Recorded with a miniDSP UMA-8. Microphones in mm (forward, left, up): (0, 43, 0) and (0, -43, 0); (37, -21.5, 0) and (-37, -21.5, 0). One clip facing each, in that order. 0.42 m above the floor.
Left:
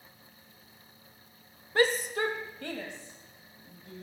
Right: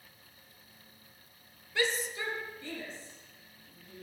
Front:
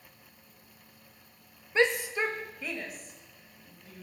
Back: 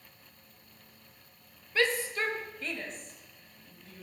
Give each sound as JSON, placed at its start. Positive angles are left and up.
{"t": 1.8, "sound": "a shout", "azimuth_deg": 60, "distance_m": 1.1}